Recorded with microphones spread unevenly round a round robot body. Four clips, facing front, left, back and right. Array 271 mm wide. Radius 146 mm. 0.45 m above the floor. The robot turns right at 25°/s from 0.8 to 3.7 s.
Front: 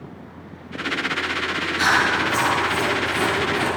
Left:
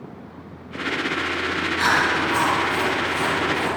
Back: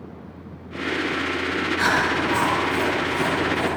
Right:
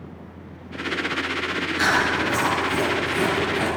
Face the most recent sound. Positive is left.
turn(degrees=-40)